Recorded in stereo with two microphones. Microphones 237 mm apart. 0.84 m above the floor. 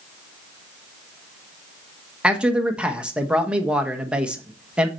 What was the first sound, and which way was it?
A man speaking, 5° right (ahead or behind).